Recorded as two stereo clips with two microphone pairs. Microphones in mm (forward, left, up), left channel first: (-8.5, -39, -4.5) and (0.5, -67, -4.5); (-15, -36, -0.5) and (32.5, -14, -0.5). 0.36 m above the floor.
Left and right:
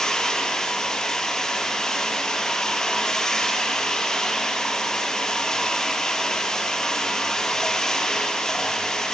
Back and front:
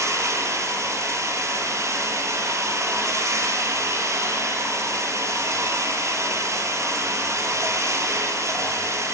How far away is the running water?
About 4 m.